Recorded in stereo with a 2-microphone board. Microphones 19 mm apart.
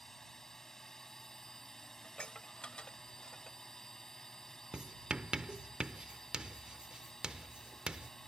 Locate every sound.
0.0 s a drone: 30° left (ahead or behind)
2.0 s dishes clattering: 70° left (ahead or behind)
4.7 s writing: 55° right (ahead or behind)